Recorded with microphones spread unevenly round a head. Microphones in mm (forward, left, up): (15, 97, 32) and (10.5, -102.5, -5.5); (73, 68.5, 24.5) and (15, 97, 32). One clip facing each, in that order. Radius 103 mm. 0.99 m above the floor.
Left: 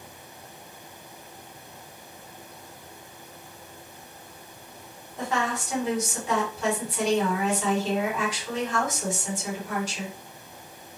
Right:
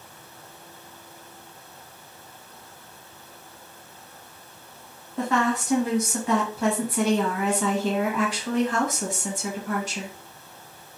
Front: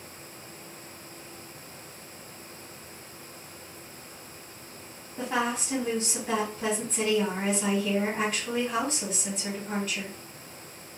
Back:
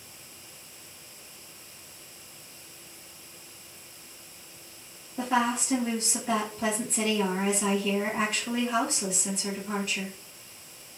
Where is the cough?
I don't hear a cough.